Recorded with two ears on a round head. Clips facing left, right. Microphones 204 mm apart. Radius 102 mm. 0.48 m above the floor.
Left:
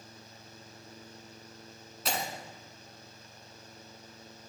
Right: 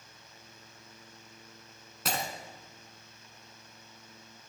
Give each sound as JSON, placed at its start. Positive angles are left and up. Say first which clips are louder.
{"t": 2.0, "sound": "breaking glass", "louder": "even", "side_deg": -45, "distance_m": 1.6}